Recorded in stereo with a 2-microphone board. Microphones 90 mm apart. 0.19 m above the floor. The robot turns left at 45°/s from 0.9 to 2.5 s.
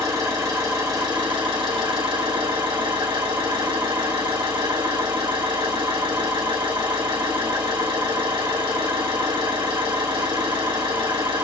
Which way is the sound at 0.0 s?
45° right.